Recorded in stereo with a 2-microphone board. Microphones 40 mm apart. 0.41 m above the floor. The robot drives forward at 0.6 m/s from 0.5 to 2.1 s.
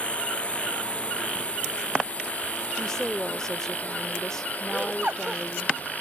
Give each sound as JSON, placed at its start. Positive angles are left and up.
{"t": 0.0, "sound": "a drone", "side_deg": 30}
{"t": 2.8, "sound": "a woman speaking", "side_deg": 15}
{"t": 4.7, "sound": "laughter", "side_deg": -35}